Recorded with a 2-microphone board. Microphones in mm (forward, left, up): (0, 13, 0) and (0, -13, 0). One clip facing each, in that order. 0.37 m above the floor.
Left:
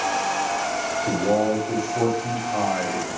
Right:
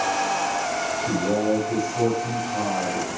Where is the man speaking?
40° left (ahead or behind), 2 m.